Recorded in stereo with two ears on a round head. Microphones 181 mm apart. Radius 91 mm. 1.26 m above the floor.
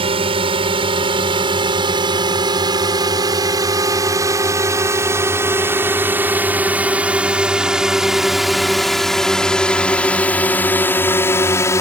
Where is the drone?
25° right (ahead or behind); by 11.8 s 15° left (ahead or behind).